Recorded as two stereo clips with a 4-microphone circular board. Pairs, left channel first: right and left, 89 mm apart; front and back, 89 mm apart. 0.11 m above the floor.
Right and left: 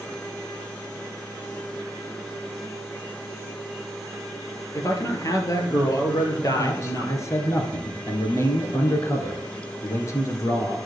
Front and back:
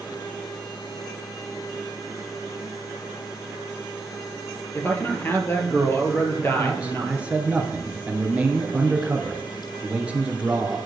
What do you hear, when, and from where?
4.8 s a man speaking: 55° right, 2.5 m
6.6 s a man speaking: 115° right, 2 m